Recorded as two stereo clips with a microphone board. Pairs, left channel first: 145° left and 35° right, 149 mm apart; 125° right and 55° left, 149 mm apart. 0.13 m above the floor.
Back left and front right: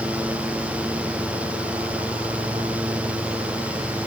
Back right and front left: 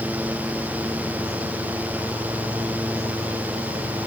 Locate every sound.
Only background noise.